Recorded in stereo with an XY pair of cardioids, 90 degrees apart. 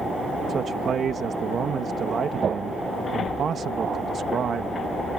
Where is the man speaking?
60° right.